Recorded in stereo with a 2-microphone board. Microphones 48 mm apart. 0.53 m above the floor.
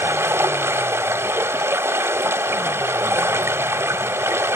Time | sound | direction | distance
0.0 | running water | 70° right (ahead or behind) | 0.7 m